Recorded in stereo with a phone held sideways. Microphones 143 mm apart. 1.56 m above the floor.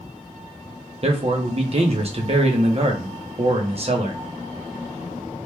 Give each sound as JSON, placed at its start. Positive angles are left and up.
{"t": 1.0, "sound": "a man speaking", "side_deg": -45, "distance_m": 0.7}